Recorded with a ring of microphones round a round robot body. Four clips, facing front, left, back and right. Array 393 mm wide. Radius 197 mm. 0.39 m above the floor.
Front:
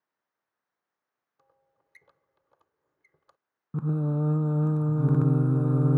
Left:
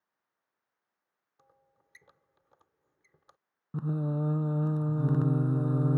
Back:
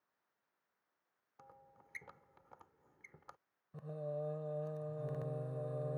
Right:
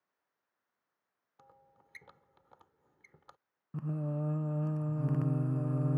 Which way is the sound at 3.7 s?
15° left.